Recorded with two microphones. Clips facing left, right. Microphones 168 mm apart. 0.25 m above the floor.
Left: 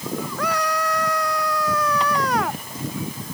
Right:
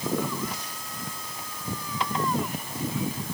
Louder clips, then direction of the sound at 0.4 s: Left 12 dB; 80° left.